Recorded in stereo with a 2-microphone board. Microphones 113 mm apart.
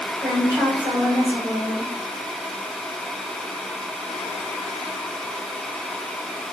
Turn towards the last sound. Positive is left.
turn(degrees=-25)  # may be behind; listen again after turning